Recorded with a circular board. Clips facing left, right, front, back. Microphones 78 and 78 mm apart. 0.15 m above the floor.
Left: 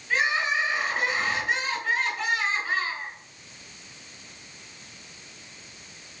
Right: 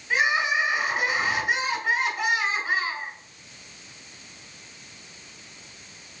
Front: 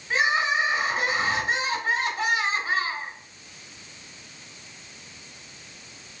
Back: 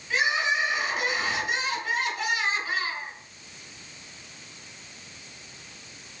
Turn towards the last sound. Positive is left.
turn(degrees=-20)